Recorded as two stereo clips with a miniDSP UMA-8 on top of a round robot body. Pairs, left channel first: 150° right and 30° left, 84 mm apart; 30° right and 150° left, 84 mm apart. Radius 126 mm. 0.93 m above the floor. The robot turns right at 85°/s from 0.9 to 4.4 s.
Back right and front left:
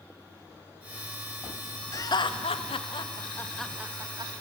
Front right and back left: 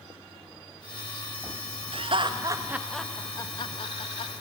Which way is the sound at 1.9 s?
155° left.